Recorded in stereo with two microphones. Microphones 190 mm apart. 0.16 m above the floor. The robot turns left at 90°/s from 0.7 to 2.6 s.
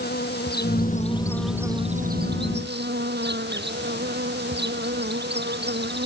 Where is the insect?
70° left; by 6.1 s 100° right.